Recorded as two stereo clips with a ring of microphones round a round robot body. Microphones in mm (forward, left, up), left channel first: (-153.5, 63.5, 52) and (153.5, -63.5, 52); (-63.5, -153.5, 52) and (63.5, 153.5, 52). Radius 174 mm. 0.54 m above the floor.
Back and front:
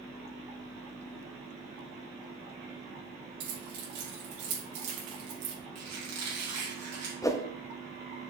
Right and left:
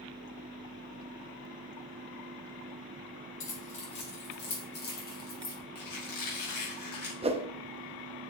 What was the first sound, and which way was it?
Keys jangling, 60° right.